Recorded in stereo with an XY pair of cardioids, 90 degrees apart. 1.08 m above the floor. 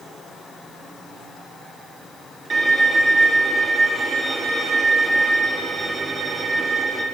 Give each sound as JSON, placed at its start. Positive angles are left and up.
{"t": 2.5, "sound": "a violin", "azimuth_deg": -45, "distance_m": 2.5}